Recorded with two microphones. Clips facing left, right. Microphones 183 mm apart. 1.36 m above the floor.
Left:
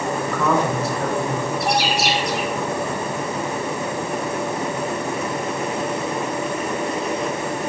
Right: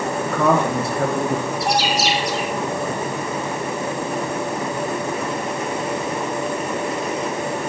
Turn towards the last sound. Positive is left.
turn(degrees=55)  # may be behind; listen again after turning